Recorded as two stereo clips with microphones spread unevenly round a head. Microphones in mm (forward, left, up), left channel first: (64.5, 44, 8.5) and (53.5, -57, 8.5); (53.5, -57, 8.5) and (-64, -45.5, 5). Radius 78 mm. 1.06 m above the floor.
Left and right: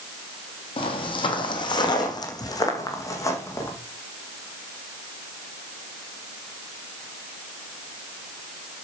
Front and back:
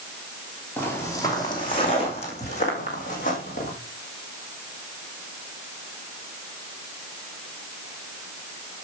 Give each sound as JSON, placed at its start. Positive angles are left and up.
{"t": 0.8, "sound": "footsteps", "azimuth_deg": 70, "distance_m": 1.6}